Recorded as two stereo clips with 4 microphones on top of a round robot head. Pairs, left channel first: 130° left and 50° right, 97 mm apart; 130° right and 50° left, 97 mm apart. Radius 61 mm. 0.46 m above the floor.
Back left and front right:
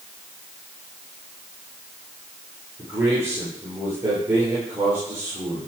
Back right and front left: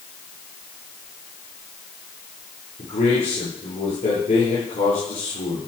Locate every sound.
2.8 s a man speaking: 115° right, 9.5 m